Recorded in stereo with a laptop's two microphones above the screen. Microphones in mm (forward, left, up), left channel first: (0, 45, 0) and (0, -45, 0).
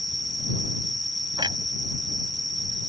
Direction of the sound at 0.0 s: 45° left (ahead or behind).